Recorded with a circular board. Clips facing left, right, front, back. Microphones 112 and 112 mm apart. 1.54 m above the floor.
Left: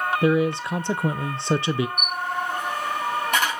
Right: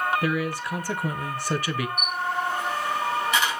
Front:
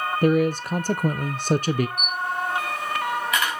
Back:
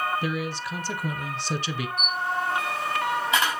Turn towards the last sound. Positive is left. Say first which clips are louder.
# even, even
turn(degrees=120)